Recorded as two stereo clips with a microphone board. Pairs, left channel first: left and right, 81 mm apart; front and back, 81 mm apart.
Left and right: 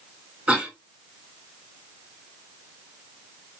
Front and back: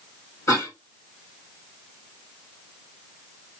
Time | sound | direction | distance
0.5 | a cough | 20° right | 1.8 m